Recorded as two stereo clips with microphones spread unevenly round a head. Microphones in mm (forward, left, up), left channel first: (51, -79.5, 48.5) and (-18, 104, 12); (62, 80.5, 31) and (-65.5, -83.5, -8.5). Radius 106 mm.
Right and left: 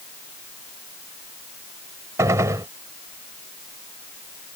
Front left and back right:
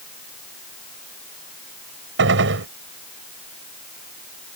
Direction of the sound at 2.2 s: 170° right.